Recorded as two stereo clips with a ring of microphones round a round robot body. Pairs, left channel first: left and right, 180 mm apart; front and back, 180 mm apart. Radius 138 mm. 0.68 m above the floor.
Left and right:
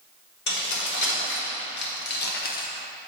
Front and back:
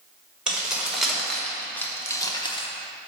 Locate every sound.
0.5 s keys jangling: 95° left, 1.9 m; by 2.7 s 55° left, 0.9 m